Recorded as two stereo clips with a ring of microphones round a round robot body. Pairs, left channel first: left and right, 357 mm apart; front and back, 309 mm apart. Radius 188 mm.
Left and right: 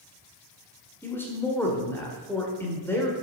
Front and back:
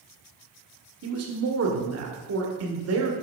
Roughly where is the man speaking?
Behind.